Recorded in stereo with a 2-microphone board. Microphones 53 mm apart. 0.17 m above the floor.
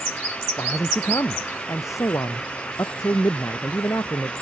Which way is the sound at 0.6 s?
80° left.